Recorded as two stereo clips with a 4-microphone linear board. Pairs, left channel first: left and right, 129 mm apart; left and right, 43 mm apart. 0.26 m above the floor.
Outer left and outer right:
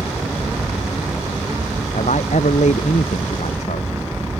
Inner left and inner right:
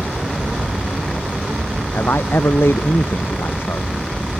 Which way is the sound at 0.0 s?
10° right (ahead or behind).